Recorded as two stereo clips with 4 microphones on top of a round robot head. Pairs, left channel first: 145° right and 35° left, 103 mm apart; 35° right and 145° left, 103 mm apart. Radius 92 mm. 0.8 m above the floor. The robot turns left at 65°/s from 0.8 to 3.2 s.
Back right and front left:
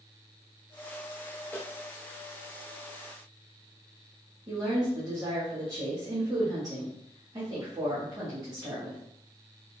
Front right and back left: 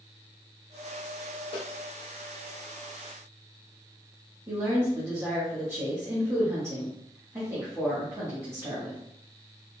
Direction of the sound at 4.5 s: 85° left.